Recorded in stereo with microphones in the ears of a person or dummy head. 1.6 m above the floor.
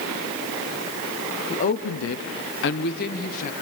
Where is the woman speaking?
35° left (ahead or behind), 0.7 m; by 3.5 s 40° left (ahead or behind), 1.5 m.